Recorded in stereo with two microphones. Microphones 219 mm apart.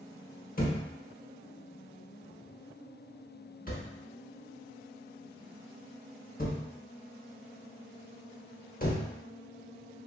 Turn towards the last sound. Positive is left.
turn(degrees=40)  # may be behind; listen again after turning